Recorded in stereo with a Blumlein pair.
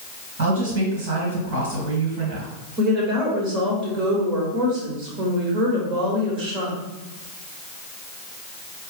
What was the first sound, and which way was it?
A woman speaking, 50° right.